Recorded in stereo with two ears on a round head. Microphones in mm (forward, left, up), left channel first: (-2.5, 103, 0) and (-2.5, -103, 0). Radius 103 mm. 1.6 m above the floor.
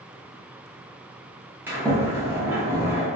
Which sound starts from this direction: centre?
A sliding door, at 1.7 s.